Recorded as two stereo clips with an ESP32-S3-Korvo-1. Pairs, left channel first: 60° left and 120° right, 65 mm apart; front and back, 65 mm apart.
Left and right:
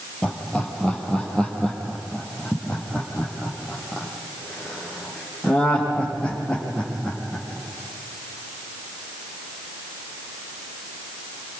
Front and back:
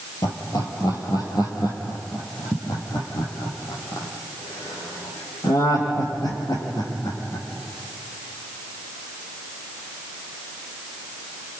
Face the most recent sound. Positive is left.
turn(degrees=-15)